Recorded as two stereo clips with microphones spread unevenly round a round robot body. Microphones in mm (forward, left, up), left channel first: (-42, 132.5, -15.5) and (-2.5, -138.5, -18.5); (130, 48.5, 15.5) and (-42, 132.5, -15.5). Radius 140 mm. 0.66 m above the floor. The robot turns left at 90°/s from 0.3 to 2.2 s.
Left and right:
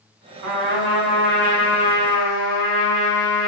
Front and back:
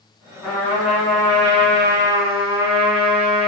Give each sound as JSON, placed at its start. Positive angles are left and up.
{"t": 0.4, "sound": "a trumpet", "azimuth_deg": -110, "distance_m": 5.5}